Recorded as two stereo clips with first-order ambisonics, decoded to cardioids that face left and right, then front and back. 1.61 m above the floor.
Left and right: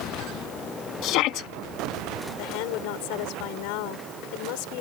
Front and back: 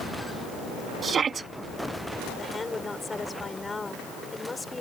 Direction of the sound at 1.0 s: 115° left.